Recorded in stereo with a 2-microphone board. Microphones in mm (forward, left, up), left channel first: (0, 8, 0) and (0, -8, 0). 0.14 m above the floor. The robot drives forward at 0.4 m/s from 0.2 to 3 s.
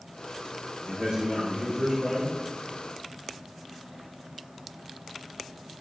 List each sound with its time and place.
0.9 s a man speaking: 70° right (ahead or behind), 5.5 m; by 2.4 s 75° right (ahead or behind), 5.5 m